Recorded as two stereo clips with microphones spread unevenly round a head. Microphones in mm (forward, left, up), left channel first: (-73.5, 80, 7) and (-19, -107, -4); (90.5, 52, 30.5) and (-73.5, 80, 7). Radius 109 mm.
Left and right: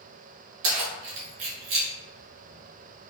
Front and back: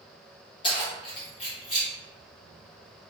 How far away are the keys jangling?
About 1.0 m.